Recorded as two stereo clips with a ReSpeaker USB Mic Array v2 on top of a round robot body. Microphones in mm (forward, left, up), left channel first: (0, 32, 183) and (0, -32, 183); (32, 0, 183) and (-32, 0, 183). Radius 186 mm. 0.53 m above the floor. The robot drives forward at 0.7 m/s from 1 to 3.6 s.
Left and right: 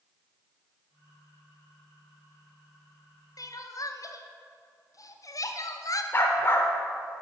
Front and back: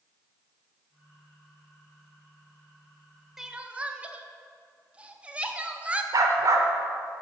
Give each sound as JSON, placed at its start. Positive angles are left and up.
{"t": 3.4, "sound": "crying", "azimuth_deg": 95, "distance_m": 0.7}
{"t": 6.1, "sound": "a dog barking", "azimuth_deg": 145, "distance_m": 0.7}